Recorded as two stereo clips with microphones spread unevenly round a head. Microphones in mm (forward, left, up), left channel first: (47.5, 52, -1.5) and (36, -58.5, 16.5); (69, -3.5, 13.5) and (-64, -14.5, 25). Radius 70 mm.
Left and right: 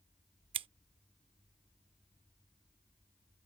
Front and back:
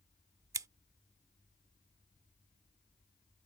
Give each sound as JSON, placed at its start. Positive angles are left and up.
{"t": 0.5, "sound": "scissors", "azimuth_deg": -115}